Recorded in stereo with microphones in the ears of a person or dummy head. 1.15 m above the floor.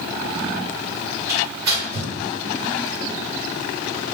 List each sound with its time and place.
1.3 s tearing paper: 15° right (ahead or behind), 1.7 m